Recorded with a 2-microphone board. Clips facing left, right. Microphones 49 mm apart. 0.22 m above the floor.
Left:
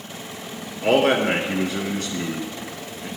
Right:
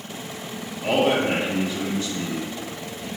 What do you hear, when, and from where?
0.8 s a man speaking: 65° left (ahead or behind), 2.5 m